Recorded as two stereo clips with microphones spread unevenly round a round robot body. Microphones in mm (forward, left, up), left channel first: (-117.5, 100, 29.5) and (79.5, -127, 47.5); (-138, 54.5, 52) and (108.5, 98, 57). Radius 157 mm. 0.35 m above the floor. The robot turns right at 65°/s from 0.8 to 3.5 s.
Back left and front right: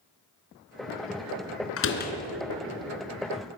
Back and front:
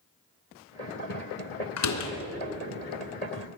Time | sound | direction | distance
1.8 | a door slam | 175° left | 3 m